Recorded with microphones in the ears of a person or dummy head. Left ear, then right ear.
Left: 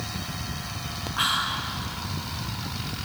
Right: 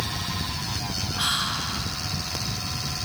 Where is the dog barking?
I don't hear a dog barking.